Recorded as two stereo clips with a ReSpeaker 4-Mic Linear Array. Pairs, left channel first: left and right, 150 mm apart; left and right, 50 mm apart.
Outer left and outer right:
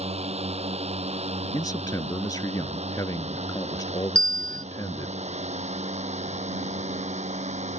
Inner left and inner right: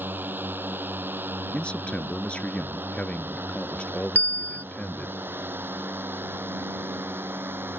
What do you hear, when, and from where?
0.0 s a drone: 45° right (ahead or behind); by 7.8 s 50° right (ahead or behind)
1.5 s a man speaking: 25° left (ahead or behind)
4.2 s a bell: 35° left (ahead or behind)